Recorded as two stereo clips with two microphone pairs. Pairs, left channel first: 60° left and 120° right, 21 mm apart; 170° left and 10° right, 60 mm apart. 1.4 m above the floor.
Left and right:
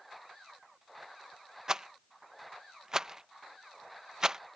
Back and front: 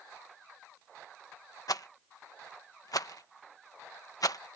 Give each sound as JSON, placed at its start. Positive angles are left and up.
{"t": 1.7, "sound": "a rattle", "azimuth_deg": 175}